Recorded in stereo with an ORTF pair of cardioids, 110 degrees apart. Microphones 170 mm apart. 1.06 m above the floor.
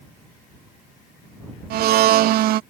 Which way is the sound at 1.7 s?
65° right.